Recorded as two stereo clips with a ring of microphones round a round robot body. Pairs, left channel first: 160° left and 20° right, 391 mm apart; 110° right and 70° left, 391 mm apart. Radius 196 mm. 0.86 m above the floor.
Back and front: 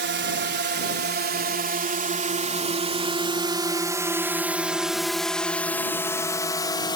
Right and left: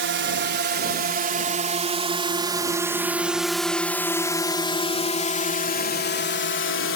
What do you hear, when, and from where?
0.0 s a drone: 25° left; by 7.0 s 135° right